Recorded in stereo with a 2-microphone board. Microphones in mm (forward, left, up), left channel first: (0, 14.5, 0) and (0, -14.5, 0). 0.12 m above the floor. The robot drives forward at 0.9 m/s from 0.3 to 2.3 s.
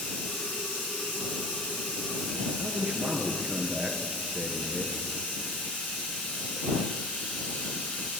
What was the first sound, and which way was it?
Running water, 65° left (ahead or behind).